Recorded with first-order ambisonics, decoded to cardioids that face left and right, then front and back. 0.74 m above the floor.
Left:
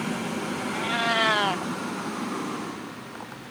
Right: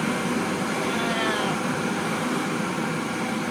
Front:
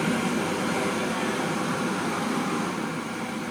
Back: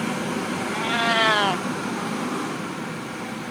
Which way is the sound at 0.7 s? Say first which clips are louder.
Left 5 dB, back 6 dB; 160° left.